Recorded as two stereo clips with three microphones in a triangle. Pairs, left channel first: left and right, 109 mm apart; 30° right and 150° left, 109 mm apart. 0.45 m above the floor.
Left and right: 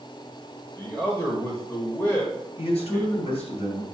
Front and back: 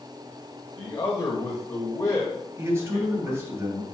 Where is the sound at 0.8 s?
20° left, 1.4 m.